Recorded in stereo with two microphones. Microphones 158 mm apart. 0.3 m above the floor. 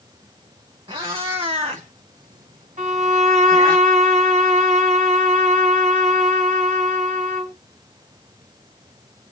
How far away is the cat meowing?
About 1.2 m.